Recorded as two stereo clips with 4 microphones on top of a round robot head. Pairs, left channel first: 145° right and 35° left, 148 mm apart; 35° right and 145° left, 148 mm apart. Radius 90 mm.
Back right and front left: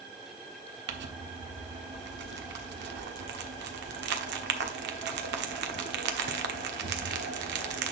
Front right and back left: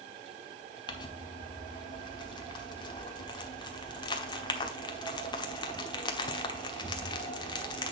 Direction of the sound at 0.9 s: 30° left.